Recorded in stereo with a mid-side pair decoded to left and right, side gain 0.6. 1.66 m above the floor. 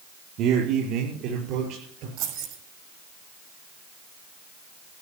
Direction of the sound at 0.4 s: 65° right.